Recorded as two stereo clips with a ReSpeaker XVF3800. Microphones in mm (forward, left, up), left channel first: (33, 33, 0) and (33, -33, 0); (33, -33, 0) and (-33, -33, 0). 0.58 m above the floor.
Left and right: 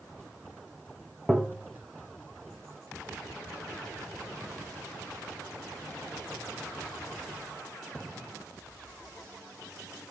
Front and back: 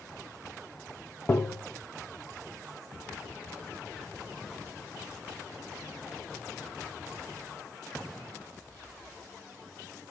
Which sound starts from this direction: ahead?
Tapping, at 1.3 s.